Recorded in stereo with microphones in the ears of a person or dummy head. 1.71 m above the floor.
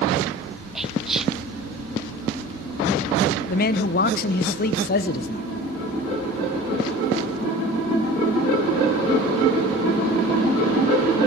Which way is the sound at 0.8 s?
5° left (ahead or behind).